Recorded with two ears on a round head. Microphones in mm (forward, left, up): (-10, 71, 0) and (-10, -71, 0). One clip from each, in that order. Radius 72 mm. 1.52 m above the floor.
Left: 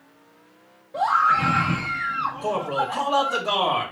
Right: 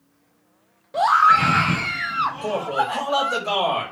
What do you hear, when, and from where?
0.9 s a scream: 60° right (ahead or behind), 0.7 m
2.4 s a man speaking: 20° right (ahead or behind), 2.5 m